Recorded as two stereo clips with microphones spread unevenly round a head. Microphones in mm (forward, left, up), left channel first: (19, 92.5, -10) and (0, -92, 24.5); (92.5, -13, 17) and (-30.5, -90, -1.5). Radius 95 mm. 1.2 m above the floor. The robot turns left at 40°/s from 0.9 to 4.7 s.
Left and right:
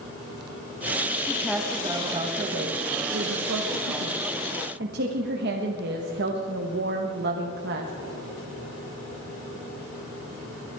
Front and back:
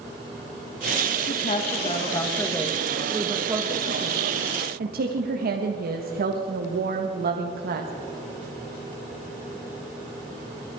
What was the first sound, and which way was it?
A woman speaking, 5° left.